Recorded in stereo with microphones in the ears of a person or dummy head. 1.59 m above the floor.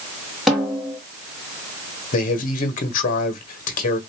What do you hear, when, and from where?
0.5 s a snare drum: centre (ahead or behind), 1.8 m
2.1 s a man speaking: 45° left (ahead or behind), 1.4 m